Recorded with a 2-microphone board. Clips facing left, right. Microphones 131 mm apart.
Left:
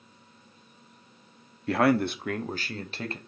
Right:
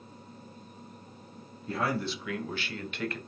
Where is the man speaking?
70° left (ahead or behind), 0.6 m; by 3.2 s 30° left (ahead or behind), 1.1 m.